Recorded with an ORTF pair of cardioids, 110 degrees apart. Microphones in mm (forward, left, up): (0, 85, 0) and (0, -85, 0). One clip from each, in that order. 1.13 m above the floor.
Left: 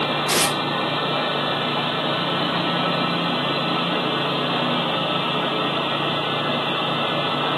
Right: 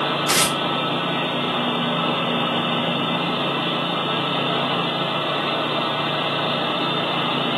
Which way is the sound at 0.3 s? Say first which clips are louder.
Right 1 dB; 20° right.